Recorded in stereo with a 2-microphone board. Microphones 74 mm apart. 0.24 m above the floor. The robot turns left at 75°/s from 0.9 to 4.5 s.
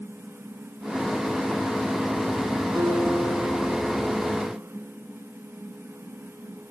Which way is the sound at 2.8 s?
115° right.